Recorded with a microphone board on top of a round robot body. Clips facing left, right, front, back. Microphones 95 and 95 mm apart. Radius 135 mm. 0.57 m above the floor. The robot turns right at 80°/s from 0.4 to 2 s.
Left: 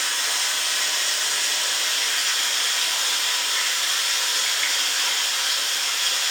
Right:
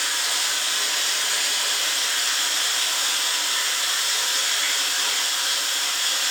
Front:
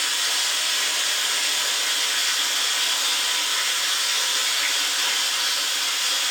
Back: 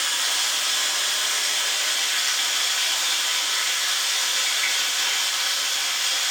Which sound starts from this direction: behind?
Running water, at 0.0 s.